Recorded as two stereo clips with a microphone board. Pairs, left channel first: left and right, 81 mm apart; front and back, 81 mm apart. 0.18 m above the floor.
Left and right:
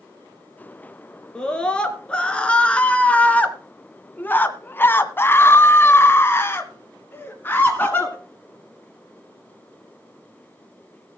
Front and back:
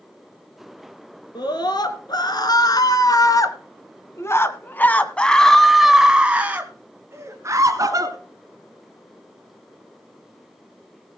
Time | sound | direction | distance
1.4 | a scream | 10° left | 3 m